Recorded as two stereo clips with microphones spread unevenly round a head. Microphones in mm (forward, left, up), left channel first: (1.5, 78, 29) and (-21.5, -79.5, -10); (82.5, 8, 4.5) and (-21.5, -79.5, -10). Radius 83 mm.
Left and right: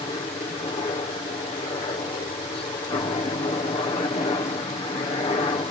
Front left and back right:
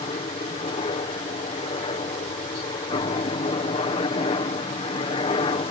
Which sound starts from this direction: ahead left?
A helicopter, at 0.0 s.